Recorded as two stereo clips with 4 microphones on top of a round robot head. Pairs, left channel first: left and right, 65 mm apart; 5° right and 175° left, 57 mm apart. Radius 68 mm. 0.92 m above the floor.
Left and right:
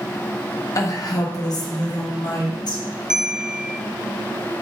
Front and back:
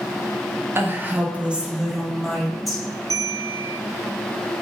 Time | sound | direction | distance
0.8 | a woman speaking | 125° left | 1.5 m
3.1 | a bell | 165° right | 0.8 m